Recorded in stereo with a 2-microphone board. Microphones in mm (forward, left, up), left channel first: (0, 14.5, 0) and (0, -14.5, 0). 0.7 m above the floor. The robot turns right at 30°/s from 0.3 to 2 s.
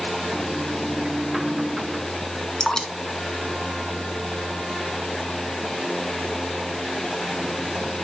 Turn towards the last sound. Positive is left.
turn(degrees=30)  # may be behind; listen again after turning